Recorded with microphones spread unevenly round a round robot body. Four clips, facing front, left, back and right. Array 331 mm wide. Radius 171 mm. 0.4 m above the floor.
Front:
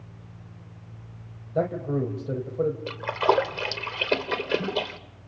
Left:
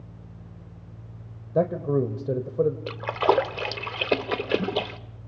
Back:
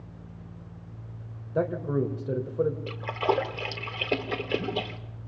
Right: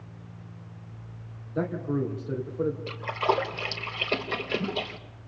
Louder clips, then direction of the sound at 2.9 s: Left 4 dB, front 4 dB; 60° left.